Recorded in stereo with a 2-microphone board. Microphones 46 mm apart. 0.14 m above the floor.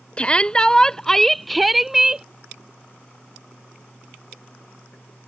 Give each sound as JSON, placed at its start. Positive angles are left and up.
{"t": 0.2, "sound": "a shout", "side_deg": 25}